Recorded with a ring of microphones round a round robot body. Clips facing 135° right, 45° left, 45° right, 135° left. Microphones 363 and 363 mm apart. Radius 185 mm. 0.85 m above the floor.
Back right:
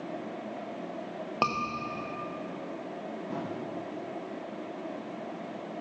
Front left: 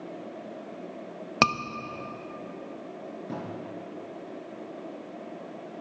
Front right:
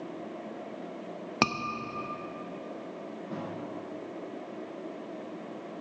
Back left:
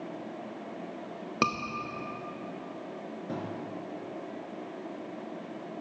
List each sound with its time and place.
1.4 s a scream: 30° left, 0.7 m
3.3 s a thud: 100° left, 4 m